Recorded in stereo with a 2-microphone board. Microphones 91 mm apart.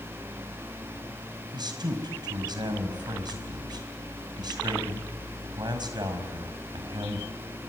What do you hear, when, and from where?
1.5 s a man speaking: 50° right (ahead or behind), 4.5 m